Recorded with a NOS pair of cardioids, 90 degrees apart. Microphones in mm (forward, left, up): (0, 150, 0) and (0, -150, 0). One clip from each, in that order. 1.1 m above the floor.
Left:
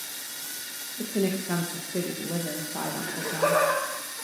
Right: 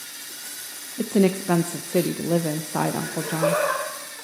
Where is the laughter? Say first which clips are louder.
Right 2 dB; 5° right, 4.5 m.